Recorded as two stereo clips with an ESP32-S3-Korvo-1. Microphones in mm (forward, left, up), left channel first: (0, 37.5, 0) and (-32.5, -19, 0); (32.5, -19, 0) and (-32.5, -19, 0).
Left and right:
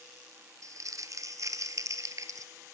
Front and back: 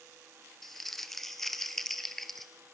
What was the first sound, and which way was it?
Crumpling, 85° right.